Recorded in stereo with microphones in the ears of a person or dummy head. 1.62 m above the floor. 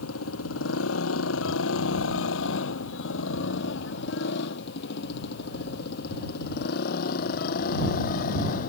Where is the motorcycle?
85° left; by 8.7 s 45° left (ahead or behind).